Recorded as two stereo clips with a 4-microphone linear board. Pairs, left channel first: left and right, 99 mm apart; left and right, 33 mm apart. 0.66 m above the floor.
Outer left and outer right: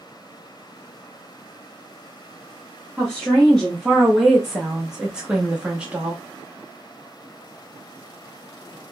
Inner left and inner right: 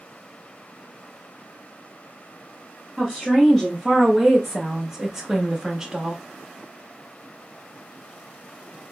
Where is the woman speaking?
5° left (ahead or behind), 1.1 m; by 6.2 s 10° right (ahead or behind), 1.1 m.